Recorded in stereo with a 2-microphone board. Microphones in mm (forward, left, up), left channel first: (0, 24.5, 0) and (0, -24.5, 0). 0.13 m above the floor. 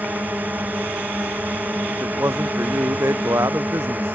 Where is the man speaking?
80° right.